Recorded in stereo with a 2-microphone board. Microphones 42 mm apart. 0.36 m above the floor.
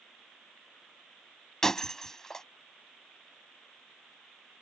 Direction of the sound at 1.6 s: 10° left (ahead or behind).